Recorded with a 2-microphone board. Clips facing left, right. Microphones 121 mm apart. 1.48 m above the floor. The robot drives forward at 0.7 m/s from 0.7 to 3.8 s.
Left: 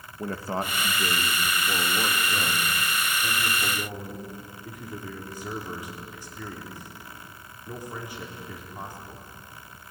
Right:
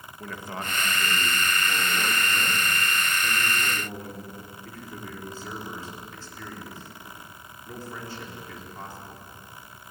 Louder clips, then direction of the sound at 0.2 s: Left 6 dB; 35° left (ahead or behind).